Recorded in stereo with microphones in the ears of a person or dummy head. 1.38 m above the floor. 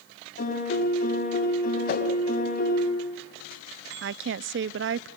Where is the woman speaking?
60° right (ahead or behind), 0.6 m.